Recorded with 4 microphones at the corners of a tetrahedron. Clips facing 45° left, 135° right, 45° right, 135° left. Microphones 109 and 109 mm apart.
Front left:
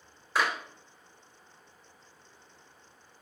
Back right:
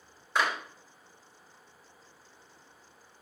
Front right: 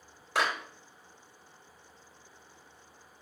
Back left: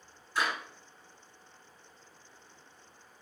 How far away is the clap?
About 3 m.